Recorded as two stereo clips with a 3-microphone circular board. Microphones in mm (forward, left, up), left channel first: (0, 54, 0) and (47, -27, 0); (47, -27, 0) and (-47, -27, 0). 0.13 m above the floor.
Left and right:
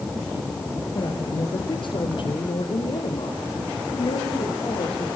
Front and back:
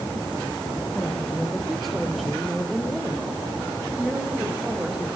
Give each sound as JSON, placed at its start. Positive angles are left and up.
{"t": 0.9, "sound": "a woman speaking", "azimuth_deg": 85, "distance_m": 3.5}